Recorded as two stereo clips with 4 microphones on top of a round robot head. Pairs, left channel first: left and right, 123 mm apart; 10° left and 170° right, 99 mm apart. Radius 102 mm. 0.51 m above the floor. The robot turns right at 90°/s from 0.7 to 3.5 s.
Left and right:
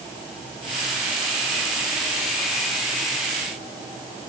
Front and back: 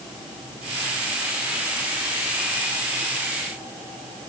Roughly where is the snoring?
I don't hear snoring.